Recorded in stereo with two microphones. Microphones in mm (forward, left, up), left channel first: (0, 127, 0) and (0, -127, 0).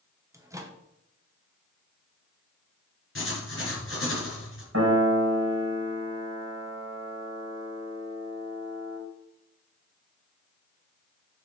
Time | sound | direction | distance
0.3 | a microwave | 10° right (ahead or behind) | 0.9 m
3.1 | writing | 50° left (ahead or behind) | 2.5 m
4.7 | a piano | 65° right (ahead or behind) | 3 m